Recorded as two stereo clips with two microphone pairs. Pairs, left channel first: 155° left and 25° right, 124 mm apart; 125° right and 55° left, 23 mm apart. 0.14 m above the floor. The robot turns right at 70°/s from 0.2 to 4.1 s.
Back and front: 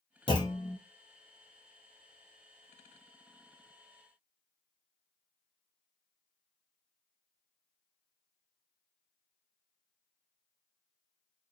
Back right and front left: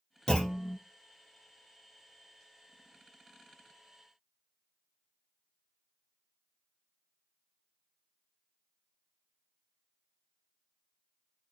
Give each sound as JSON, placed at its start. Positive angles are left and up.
{"t": 0.3, "sound": "a clunk", "azimuth_deg": -165, "distance_m": 0.9}